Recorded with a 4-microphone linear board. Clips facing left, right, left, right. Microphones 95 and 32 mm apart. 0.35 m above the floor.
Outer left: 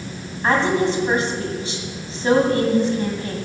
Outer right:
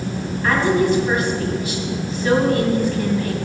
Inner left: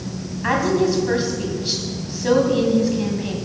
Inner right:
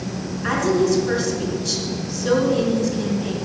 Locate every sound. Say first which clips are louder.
0.4 s a woman speaking: outer right 1 dB, even; 30° left (ahead or behind), 2.5 m